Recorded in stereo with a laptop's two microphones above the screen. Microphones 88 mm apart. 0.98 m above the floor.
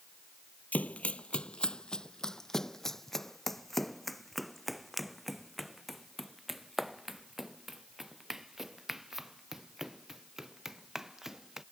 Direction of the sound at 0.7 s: 20° left (ahead or behind).